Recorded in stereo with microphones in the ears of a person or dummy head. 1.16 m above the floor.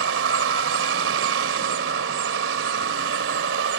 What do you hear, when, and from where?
0.0 s a vehicle: 80° right